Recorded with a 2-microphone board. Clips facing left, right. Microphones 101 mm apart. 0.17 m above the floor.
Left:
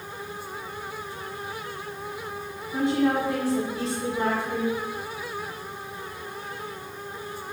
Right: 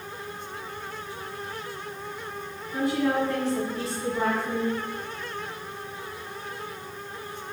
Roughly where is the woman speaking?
Left.